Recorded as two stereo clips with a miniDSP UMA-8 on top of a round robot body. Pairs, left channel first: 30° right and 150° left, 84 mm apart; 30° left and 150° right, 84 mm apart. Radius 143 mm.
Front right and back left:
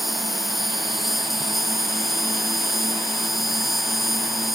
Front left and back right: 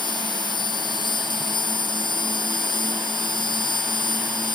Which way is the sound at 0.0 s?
60° left.